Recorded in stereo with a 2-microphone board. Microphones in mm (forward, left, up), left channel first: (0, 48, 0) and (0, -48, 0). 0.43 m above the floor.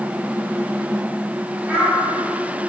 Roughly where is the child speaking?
Centre.